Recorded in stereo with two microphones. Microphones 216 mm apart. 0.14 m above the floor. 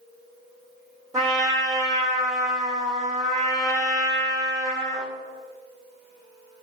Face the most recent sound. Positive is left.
turn(degrees=-15)  # may be behind; listen again after turning